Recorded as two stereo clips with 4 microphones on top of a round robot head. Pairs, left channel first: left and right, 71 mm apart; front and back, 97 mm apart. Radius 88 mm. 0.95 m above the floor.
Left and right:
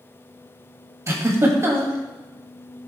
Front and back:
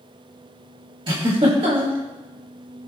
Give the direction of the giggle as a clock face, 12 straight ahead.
5 o'clock.